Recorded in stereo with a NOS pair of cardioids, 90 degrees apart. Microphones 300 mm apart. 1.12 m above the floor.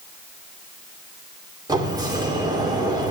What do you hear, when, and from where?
1.7 s a sliding door: 15° right, 1.9 m